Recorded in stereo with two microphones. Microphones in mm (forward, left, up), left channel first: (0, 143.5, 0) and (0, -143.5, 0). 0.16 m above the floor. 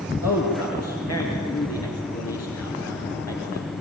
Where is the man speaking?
60° left (ahead or behind), 3 m.